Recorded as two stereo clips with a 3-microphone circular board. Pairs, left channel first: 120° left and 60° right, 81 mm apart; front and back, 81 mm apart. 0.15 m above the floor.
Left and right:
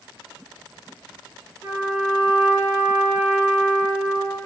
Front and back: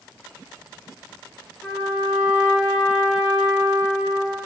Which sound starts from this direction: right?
A trumpet, at 1.6 s.